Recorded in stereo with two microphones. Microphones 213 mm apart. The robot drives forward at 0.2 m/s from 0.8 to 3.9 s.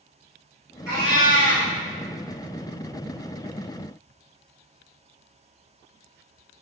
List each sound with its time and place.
0.9 s a cat meowing: 55° right (ahead or behind), 1.4 m